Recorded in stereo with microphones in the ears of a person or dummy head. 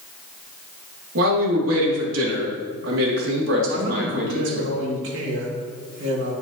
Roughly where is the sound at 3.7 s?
Right.